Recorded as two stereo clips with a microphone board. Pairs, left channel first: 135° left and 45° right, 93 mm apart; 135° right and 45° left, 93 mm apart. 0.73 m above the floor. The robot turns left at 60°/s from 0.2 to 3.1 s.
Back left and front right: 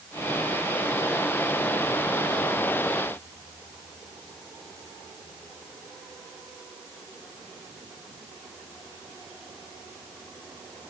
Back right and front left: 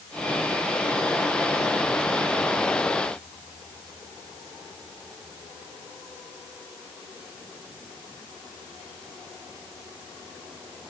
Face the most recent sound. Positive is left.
No sound to turn to.